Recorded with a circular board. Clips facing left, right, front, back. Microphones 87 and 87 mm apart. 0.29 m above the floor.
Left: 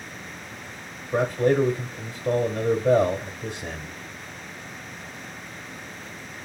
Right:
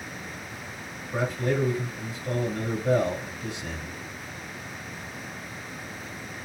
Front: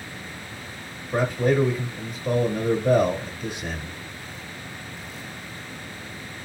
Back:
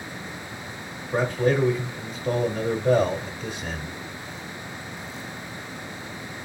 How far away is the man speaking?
About 1.1 m.